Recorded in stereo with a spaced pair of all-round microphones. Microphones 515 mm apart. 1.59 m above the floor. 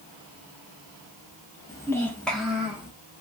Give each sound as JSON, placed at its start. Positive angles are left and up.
{"t": 1.7, "sound": "a child speaking", "side_deg": 5, "distance_m": 0.8}